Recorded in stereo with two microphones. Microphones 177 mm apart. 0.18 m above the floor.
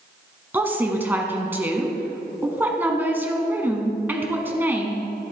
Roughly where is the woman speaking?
Centre.